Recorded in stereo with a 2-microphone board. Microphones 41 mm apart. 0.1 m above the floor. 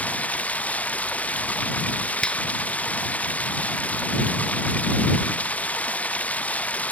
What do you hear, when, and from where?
0.0 s running water: 35° left (ahead or behind)
2.2 s a finger snap: 25° left (ahead or behind)